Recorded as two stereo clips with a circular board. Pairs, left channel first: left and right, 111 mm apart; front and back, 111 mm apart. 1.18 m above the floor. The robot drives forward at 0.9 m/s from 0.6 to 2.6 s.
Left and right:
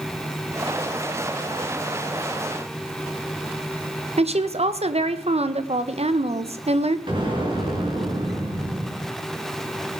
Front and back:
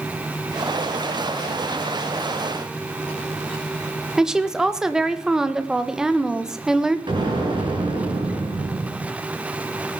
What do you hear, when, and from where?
4.2 s a woman speaking: 95° right, 1.2 m
7.1 s an explosion: 135° right, 4.5 m